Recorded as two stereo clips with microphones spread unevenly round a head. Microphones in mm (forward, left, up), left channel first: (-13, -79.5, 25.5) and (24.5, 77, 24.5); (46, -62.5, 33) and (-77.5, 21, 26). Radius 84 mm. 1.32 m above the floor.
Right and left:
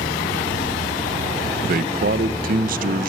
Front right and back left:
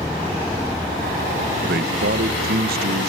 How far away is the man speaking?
About 1.1 m.